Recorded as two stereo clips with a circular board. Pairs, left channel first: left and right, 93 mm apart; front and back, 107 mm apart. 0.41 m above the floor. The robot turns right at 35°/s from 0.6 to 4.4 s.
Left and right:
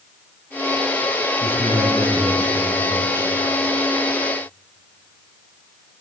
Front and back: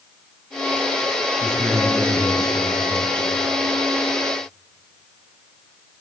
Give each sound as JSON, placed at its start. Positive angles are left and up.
{"t": 1.4, "sound": "a man speaking", "azimuth_deg": 75, "distance_m": 5.5}